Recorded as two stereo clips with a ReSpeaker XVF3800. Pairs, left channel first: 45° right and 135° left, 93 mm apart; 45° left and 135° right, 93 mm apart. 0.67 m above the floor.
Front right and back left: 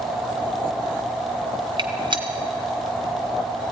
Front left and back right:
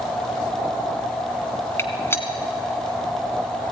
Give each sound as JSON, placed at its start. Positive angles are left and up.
{"t": 1.8, "sound": "a gunshot", "azimuth_deg": 105, "distance_m": 1.6}